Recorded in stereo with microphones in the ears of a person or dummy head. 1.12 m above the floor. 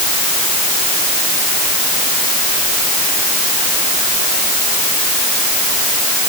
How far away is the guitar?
No guitar in this recording.